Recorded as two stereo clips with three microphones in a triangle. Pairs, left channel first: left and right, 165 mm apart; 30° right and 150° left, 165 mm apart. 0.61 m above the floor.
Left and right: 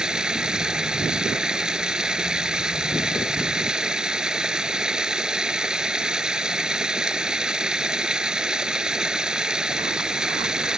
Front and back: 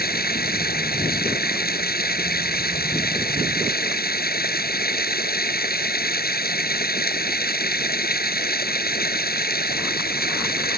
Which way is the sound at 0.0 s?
5° right.